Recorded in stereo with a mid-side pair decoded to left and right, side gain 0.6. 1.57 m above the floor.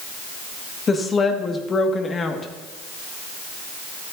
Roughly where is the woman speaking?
Ahead left.